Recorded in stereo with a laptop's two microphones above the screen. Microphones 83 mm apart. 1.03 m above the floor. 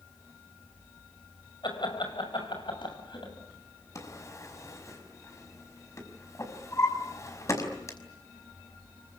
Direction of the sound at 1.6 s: 85° left.